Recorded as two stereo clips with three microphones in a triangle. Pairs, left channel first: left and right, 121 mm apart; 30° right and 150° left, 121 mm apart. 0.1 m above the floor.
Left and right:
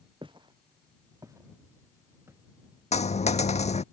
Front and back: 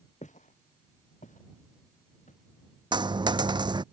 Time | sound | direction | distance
0.2 | footsteps | 45° right | ?
2.9 | a dropped coin | 105° left | ?